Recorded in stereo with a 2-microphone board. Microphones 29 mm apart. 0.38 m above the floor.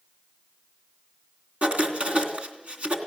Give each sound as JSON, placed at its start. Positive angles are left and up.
{"t": 1.6, "sound": "writing", "side_deg": -60, "distance_m": 3.0}